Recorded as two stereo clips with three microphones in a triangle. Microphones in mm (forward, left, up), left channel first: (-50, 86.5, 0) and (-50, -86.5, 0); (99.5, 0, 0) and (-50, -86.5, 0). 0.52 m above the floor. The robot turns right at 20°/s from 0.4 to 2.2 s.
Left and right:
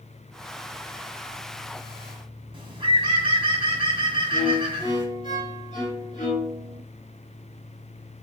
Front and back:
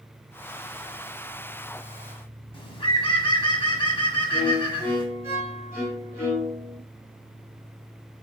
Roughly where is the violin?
Behind left.